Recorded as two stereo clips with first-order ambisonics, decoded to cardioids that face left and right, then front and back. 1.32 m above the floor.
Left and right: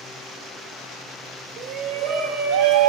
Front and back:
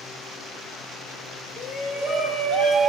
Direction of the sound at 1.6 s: 55° right.